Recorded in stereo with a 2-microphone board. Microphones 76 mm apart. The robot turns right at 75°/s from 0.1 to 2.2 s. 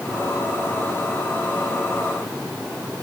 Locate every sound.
Only background noise.